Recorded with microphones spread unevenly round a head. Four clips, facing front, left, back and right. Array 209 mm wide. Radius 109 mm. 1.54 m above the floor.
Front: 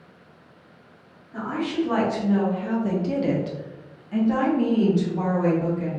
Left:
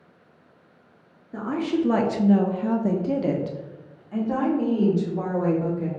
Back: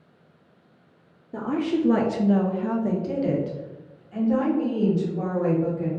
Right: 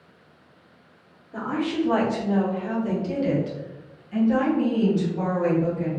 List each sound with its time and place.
1.3 s a woman speaking: 160° left, 0.7 m; by 5.9 s 35° left, 2.5 m